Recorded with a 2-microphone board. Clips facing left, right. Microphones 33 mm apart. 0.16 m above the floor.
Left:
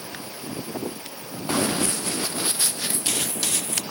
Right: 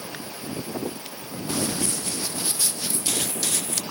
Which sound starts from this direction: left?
Running footsteps, at 1.5 s.